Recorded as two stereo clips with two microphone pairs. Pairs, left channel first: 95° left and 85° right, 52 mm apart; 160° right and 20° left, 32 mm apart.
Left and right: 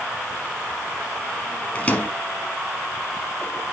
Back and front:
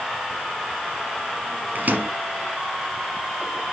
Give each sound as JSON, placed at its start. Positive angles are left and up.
{"t": 1.8, "sound": "a microwave", "azimuth_deg": 40, "distance_m": 2.5}